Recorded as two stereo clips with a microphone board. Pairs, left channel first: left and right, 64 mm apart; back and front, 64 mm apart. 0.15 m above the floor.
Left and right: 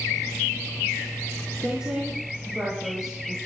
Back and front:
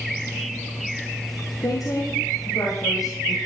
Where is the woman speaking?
170° right, 4.5 m.